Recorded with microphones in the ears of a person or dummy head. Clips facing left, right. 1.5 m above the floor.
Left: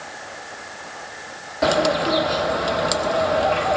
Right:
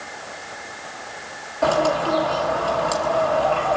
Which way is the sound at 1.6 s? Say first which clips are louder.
Even; 25° left (ahead or behind).